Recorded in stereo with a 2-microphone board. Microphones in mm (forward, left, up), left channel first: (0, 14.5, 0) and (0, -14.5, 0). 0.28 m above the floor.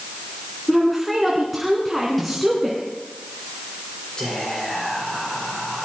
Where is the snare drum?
Centre (ahead or behind), 5 m.